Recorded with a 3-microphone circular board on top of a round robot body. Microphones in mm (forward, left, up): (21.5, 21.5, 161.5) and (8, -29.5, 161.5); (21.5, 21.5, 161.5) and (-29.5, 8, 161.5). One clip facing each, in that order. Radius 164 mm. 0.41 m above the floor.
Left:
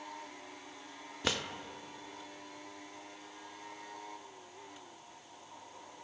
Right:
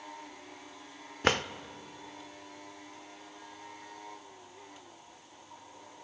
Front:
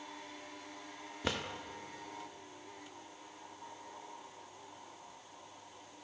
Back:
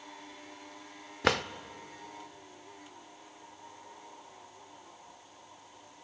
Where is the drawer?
150° right, 0.9 m.